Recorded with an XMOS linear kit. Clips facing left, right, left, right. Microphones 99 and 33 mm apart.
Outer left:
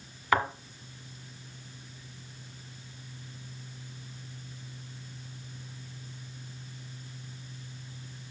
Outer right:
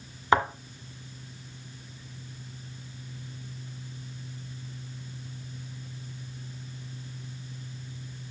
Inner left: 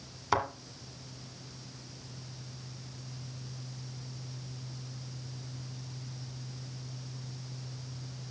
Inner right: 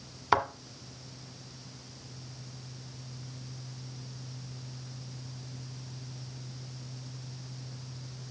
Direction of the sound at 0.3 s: 25° right (ahead or behind).